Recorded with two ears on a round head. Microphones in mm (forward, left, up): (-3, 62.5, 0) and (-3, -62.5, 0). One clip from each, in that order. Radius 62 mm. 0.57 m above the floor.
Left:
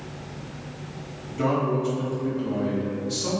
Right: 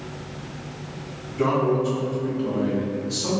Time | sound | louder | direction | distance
1.4 | a man speaking | right 3 dB | 35° left (ahead or behind) | 1.4 m